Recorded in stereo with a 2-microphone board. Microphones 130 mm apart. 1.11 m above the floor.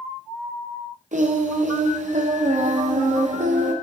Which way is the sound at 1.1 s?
70° right (ahead or behind).